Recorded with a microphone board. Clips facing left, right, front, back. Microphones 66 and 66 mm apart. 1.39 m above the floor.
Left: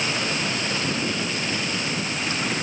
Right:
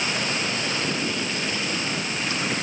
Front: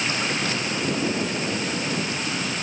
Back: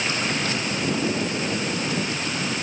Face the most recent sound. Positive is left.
No sound to turn to.